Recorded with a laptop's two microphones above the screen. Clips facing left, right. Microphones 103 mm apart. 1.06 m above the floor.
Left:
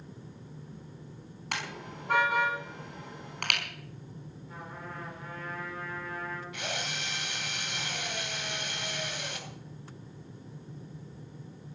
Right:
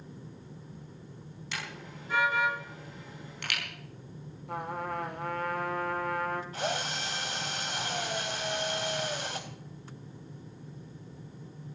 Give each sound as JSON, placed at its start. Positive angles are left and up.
{"t": 1.5, "sound": "a car horn", "side_deg": 65, "distance_m": 5.0}
{"t": 4.5, "sound": "a trumpet", "side_deg": -70, "distance_m": 2.0}
{"t": 6.5, "sound": "a drill", "side_deg": -40, "distance_m": 4.0}